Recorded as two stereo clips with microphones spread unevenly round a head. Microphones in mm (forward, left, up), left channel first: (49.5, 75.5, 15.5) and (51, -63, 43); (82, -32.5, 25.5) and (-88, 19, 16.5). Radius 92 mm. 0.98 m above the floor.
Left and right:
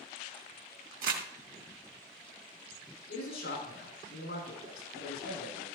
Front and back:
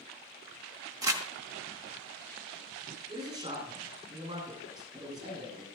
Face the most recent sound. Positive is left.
turn(degrees=95)